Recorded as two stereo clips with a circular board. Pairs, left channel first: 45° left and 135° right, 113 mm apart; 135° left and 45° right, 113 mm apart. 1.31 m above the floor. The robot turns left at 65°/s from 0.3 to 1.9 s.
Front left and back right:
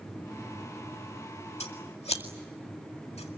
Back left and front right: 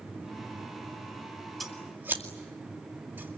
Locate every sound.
1.6 s scissors: 45° left, 2 m; by 3.4 s 25° left, 2 m